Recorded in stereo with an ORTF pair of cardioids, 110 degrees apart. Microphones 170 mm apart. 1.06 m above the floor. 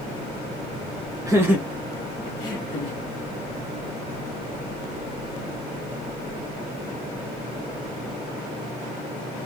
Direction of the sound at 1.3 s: 20° right.